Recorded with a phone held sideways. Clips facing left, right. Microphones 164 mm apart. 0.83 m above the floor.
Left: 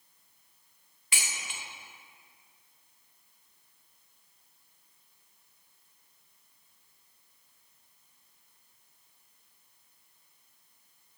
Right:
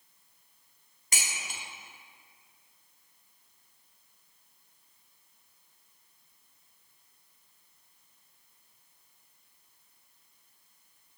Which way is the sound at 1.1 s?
40° right (ahead or behind).